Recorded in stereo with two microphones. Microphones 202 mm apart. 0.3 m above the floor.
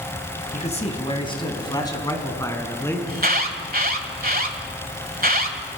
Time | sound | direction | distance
0.5 | a man speaking | 35° left (ahead or behind) | 2.5 m
3.1 | an alarm | 45° right (ahead or behind) | 1.5 m